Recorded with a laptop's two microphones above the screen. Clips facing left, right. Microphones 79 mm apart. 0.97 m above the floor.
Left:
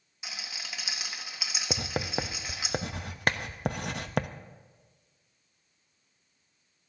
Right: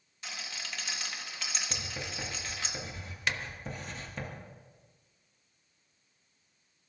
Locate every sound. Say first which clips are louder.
0.2 s a rattle: even; 10° left (ahead or behind), 1.4 m
1.7 s writing: left 8 dB; 75° left (ahead or behind), 0.6 m
3.3 s a clap: left 5 dB; 45° left (ahead or behind), 0.6 m